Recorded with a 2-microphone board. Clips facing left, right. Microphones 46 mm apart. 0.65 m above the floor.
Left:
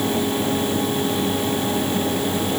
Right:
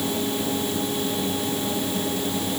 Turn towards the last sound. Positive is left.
No sound to turn to.